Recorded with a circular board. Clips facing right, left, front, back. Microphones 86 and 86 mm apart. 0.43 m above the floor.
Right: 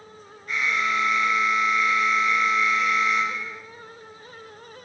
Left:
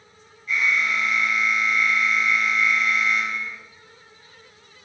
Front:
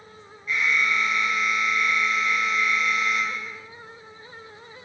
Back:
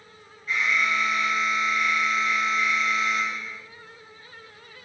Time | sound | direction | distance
0.5 | an alarm | 125° right | 4.5 m